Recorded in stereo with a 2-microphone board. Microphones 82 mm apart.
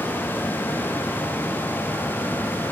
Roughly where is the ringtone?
No ringtone in this recording.